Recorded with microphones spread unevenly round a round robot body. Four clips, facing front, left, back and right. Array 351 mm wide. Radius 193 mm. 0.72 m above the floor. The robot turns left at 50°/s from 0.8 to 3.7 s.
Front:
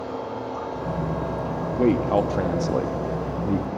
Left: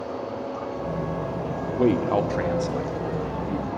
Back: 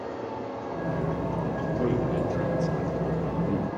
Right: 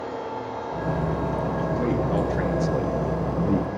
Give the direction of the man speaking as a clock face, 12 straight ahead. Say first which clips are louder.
Left 6 dB, front 8 dB; 11 o'clock.